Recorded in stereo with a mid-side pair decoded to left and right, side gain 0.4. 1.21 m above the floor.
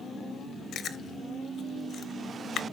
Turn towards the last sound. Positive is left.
turn(degrees=65)